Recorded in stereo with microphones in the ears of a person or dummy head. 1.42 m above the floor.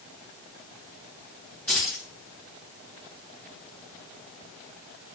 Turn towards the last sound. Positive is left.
turn(degrees=10)  # may be behind; listen again after turning